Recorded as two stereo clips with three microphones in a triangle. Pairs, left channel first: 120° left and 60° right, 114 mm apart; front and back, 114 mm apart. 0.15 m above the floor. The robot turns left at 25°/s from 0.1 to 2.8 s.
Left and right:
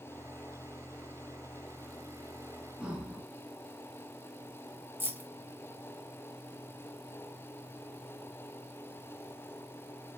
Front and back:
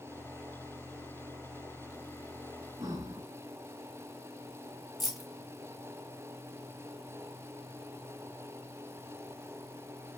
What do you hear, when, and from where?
2.8 s breathing: 135° right, 0.8 m
5.0 s keys jangling: 95° right, 0.8 m